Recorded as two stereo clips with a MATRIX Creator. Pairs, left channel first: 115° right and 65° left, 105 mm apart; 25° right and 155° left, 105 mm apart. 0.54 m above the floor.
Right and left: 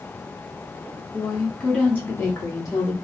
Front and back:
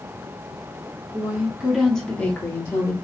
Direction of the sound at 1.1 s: 150° left.